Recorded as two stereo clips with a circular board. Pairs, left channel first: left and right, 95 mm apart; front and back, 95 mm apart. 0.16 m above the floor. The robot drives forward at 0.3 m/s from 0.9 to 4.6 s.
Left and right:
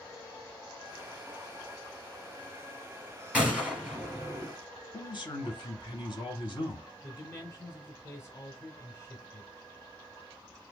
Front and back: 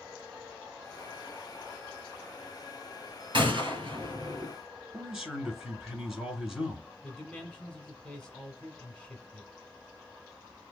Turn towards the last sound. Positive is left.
turn(degrees=70)